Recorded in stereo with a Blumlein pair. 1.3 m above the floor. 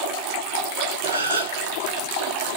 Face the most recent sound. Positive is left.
turn(degrees=-70)